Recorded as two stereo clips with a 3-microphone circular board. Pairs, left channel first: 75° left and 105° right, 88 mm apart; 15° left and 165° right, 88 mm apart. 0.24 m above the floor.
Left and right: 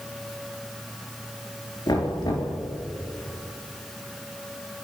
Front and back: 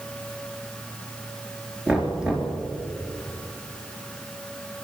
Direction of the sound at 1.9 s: 115° left.